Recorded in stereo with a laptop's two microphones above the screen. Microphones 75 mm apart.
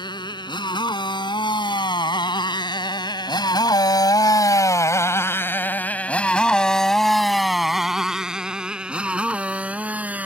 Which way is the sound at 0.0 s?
75° left (ahead or behind).